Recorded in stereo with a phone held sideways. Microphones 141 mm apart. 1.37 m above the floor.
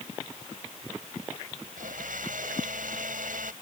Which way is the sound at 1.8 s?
85° right.